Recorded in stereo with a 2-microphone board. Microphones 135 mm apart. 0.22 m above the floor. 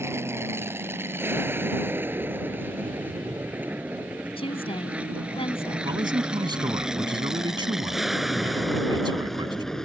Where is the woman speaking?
45° left (ahead or behind).